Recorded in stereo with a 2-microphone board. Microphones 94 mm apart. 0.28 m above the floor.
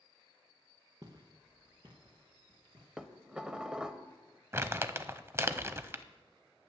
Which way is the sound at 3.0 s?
10° right (ahead or behind).